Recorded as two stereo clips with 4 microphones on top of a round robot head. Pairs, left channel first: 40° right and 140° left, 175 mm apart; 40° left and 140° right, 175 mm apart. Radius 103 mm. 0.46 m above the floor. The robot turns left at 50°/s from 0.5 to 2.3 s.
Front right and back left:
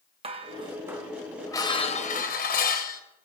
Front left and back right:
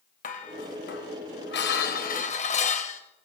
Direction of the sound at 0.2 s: 85° left.